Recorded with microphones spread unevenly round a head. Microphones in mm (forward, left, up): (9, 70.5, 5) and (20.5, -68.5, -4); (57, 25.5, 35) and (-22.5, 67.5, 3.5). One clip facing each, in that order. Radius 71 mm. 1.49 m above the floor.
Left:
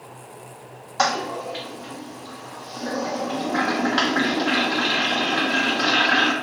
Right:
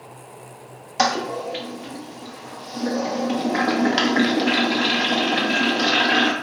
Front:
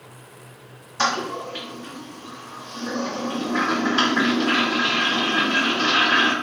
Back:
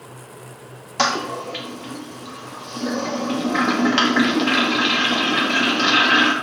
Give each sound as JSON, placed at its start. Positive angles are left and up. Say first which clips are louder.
{"t": 1.0, "sound": "a toilet flushing", "louder": "right 2 dB, back 2 dB", "azimuth_deg": -155, "distance_m": 0.5}